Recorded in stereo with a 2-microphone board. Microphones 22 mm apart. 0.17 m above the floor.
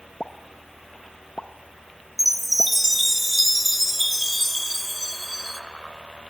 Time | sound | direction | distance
0.2 | a pop | 45° left (ahead or behind) | 0.5 m
2.2 | a chime | 5° right (ahead or behind) | 0.7 m